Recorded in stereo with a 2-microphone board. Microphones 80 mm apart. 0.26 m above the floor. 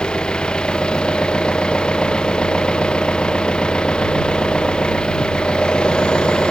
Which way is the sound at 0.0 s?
10° left (ahead or behind).